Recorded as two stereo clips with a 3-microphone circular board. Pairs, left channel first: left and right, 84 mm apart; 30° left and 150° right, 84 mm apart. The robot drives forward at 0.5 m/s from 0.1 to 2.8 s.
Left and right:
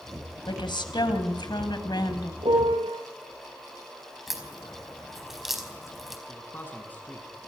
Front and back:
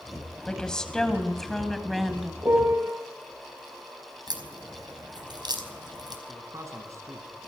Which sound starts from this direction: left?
A woman speaking, at 0.5 s.